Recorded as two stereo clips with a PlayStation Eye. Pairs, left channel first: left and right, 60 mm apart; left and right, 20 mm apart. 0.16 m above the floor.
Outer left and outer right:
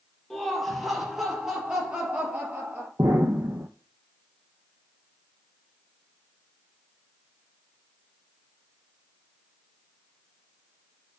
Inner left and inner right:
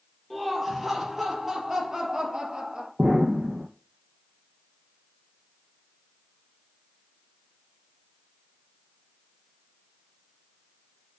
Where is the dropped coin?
No dropped coin in this recording.